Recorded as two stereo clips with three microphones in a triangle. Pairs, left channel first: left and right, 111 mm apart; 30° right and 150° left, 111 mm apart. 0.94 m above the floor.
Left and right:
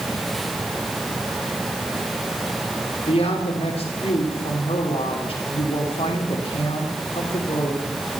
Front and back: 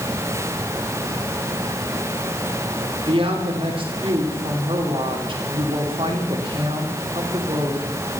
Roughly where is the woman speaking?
Behind left.